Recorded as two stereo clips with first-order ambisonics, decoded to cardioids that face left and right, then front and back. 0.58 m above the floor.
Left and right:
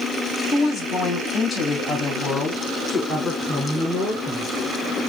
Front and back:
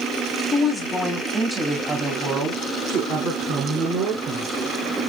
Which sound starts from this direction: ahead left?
A woman speaking, at 0.5 s.